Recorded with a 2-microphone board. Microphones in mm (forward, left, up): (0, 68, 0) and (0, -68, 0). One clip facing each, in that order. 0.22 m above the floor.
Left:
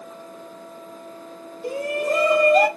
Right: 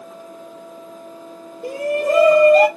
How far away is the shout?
About 4 m.